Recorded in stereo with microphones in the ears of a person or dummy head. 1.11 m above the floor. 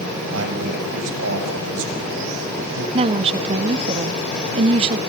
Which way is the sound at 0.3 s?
80° right.